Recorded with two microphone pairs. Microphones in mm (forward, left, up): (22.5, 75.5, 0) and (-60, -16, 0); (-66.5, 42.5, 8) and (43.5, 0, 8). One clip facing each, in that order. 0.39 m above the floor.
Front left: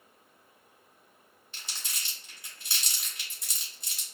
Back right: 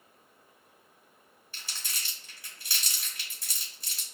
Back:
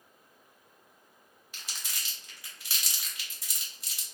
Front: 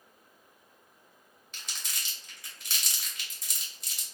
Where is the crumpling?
80° left, 1.3 m.